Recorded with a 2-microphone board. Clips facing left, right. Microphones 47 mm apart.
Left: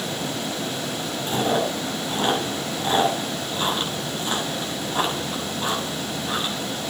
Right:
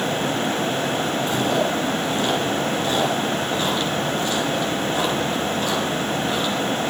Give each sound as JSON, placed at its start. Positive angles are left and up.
{"t": 1.3, "sound": "chewing", "side_deg": 20, "distance_m": 7.0}